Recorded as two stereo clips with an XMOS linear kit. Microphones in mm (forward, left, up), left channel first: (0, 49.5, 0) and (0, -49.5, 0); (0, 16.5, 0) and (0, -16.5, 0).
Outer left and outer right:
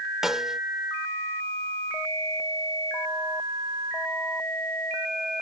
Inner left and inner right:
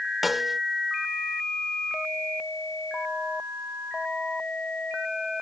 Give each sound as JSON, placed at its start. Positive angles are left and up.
{"t": 0.2, "sound": "a snare drum", "side_deg": -5}